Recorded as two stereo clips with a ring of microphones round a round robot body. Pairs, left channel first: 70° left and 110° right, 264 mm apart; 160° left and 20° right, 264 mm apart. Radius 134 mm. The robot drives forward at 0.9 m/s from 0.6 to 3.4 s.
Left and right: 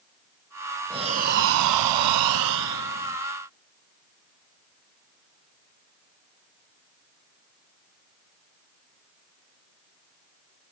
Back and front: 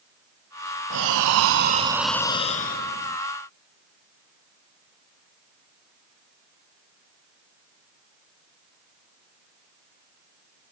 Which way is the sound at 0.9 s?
40° right.